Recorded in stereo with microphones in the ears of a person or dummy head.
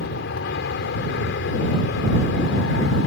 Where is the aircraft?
60° left (ahead or behind).